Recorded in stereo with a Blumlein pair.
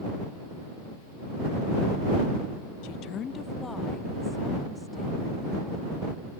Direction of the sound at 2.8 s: 45° left.